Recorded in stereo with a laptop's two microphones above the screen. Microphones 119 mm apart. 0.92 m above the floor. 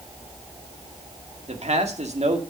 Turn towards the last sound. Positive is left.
turn(degrees=-65)  # may be behind; listen again after turning